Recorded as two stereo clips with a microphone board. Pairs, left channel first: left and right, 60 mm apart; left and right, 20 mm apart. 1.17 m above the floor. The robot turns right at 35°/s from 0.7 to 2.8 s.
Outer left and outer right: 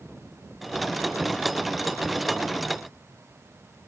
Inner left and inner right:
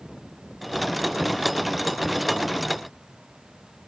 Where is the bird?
No bird in this recording.